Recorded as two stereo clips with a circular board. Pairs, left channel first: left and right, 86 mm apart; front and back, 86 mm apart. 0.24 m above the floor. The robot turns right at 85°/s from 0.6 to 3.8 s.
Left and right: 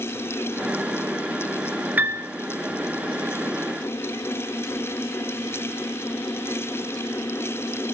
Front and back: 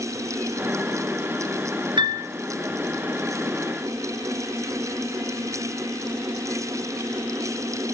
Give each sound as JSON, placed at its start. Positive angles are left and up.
{"t": 2.0, "sound": "a piano", "azimuth_deg": -160, "distance_m": 2.5}